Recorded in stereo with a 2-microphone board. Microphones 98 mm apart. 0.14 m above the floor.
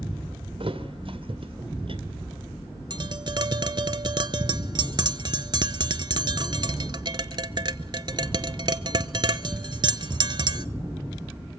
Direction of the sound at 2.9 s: 50° right (ahead or behind).